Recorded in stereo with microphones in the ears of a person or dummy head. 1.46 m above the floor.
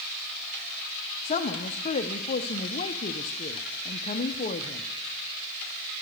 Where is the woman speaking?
35° left (ahead or behind), 0.6 m.